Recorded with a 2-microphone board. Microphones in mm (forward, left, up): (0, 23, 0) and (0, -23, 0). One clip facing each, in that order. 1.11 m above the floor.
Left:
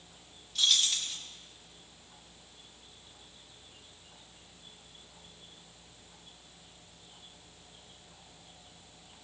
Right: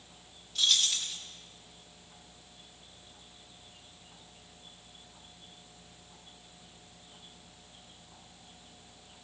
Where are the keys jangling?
Centre (ahead or behind), 1.2 m.